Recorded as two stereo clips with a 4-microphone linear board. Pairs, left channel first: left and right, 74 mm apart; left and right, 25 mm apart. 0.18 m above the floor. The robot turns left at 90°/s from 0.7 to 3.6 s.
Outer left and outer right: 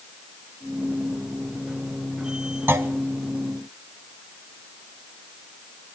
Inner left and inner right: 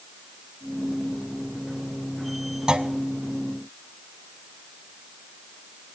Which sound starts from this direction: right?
A clunk, at 2.7 s.